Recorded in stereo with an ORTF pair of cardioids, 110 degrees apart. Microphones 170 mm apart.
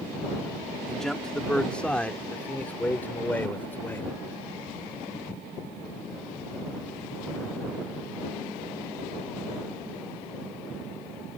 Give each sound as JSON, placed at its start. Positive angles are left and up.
{"t": 0.9, "sound": "a man speaking", "azimuth_deg": 0}